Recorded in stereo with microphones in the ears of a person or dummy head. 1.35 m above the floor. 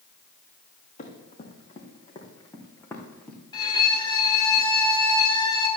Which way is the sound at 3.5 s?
30° left (ahead or behind).